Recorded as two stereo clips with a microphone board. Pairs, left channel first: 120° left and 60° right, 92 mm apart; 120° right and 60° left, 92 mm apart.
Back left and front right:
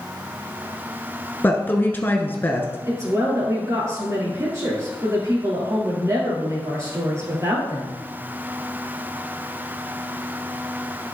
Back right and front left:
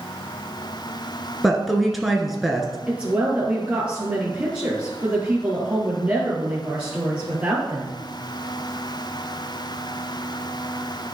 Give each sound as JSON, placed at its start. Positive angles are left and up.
{"t": 1.4, "sound": "a woman speaking", "azimuth_deg": 150, "distance_m": 1.1}
{"t": 2.9, "sound": "a woman speaking", "azimuth_deg": -10, "distance_m": 2.5}